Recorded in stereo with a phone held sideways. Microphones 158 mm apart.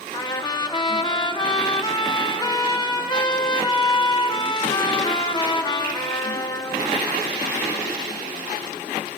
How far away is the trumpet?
About 0.7 m.